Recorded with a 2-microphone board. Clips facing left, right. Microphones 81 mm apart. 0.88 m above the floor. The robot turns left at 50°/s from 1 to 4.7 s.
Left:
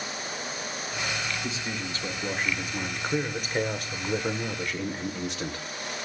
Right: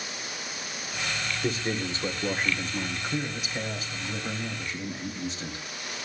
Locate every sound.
1.4 s a man speaking: 130° right, 3 m; by 5.6 s 70° left, 3 m